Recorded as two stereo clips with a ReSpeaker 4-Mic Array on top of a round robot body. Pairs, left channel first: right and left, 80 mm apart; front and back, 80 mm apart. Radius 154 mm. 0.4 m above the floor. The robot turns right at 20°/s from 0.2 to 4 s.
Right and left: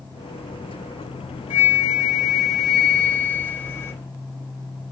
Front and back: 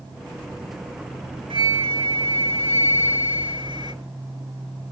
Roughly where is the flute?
Behind.